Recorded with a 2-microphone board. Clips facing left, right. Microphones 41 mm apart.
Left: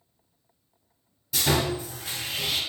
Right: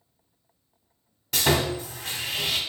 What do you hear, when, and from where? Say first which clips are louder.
1.3 s sawing: right 2 dB; 60° right (ahead or behind), 1.2 m